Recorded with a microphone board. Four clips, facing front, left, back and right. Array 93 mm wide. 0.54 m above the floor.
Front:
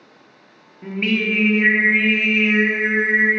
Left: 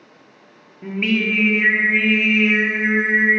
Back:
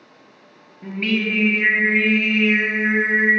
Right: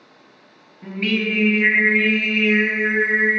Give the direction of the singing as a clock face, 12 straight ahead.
10 o'clock.